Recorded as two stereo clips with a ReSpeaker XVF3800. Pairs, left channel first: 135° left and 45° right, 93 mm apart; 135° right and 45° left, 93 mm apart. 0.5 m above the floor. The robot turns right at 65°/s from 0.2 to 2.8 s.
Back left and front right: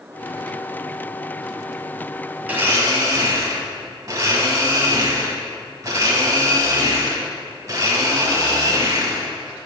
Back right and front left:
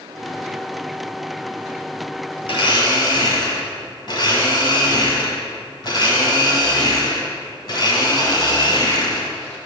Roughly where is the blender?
Behind right.